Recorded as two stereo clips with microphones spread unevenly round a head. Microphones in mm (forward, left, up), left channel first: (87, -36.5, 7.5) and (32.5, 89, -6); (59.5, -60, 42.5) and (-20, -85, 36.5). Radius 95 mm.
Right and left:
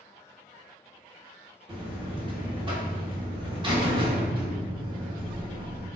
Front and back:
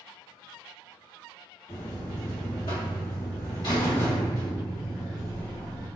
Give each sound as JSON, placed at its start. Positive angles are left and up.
{"t": 1.7, "sound": "a buzzer", "azimuth_deg": 60, "distance_m": 1.4}